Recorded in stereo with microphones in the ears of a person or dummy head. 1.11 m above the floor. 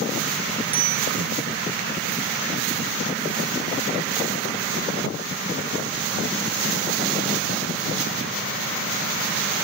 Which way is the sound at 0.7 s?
15° right (ahead or behind).